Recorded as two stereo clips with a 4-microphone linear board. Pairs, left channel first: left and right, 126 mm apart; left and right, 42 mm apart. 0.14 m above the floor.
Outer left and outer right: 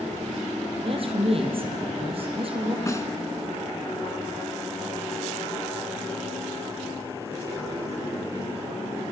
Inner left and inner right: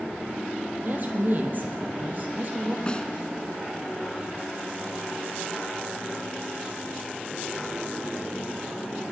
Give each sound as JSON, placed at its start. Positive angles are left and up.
{"t": 0.8, "sound": "a woman speaking", "side_deg": -45, "distance_m": 3.5}
{"t": 2.9, "sound": "a snare drum", "side_deg": 25, "distance_m": 1.1}